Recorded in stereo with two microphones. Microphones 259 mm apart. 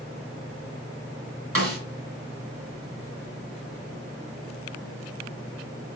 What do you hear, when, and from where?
1.6 s a snare drum: 60° right (ahead or behind), 3 m